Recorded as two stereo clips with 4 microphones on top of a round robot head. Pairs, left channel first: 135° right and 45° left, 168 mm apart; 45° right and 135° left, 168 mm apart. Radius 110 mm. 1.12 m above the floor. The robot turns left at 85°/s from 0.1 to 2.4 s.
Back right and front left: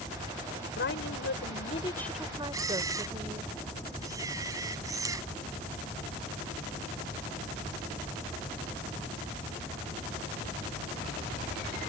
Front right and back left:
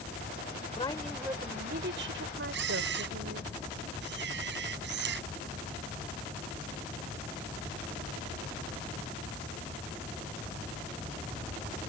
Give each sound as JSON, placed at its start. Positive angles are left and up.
{"t": 0.8, "sound": "a woman speaking", "azimuth_deg": -105}
{"t": 2.5, "sound": "a camera shutter", "azimuth_deg": 120}